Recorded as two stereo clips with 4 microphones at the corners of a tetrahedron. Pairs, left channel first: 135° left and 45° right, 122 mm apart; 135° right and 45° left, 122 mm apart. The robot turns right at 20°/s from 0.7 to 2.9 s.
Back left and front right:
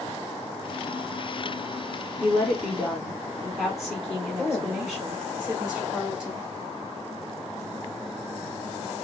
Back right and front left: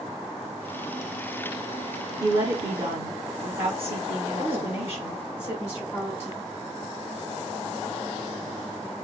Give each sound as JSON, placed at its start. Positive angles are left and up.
{"t": 2.2, "sound": "a woman speaking", "azimuth_deg": 25, "distance_m": 1.7}
{"t": 4.4, "sound": "a woman speaking", "azimuth_deg": -135, "distance_m": 1.3}